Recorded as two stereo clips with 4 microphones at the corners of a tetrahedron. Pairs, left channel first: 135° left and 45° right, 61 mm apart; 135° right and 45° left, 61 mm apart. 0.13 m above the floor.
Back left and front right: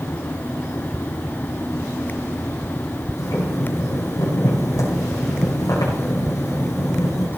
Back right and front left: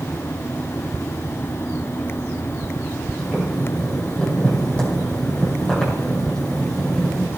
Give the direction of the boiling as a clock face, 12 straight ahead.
7 o'clock.